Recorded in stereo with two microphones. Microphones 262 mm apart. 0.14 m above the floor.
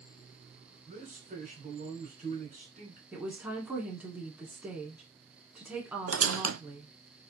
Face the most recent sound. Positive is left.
turn(degrees=-65)  # may be behind; listen again after turning